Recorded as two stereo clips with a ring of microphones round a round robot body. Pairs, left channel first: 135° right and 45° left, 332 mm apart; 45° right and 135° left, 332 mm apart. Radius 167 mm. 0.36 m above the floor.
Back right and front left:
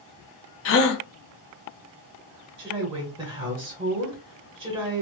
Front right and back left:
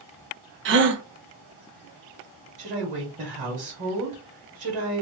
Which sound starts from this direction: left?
A woman speaking, at 2.6 s.